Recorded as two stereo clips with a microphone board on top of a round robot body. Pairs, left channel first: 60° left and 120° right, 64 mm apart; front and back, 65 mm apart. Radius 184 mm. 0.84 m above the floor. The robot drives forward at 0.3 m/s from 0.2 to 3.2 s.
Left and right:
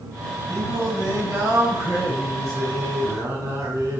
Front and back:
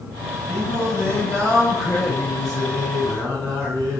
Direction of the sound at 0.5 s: 135° right.